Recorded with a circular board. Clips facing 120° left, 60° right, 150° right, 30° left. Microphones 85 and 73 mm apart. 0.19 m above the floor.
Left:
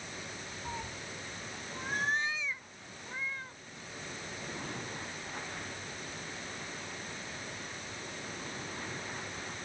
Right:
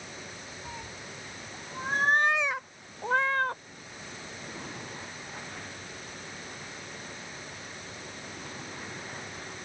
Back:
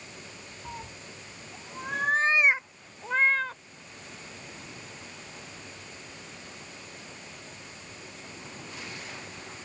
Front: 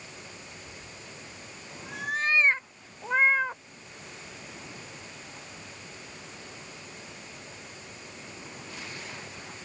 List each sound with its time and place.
0.7 s a cat meowing: 160° right; by 3.6 s 40° right